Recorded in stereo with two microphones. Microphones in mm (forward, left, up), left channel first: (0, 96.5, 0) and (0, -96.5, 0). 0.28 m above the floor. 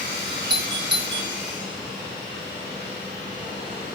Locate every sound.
0.5 s a doorbell: 25° right (ahead or behind), 1.8 m